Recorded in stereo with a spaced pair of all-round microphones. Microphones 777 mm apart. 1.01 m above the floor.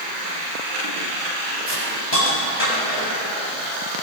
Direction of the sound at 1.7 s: 55° left (ahead or behind).